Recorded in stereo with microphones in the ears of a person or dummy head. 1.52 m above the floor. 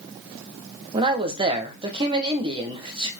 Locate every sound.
0.9 s a man speaking: 20° right (ahead or behind), 1.4 m